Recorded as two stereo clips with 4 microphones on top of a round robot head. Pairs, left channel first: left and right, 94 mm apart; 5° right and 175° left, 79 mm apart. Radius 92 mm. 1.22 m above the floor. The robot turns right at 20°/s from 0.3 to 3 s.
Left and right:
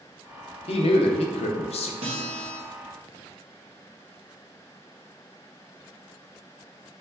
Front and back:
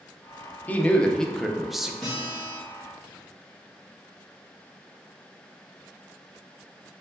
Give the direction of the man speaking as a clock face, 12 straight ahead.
10 o'clock.